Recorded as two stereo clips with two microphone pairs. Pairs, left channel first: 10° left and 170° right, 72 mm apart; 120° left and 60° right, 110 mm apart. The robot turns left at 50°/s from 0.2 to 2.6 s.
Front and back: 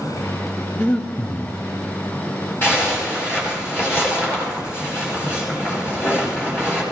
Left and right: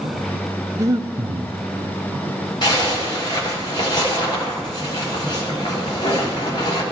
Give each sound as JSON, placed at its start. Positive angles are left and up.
{"t": 0.8, "sound": "breathing", "azimuth_deg": -25, "distance_m": 0.8}
{"t": 2.6, "sound": "a zipper", "azimuth_deg": 70, "distance_m": 4.5}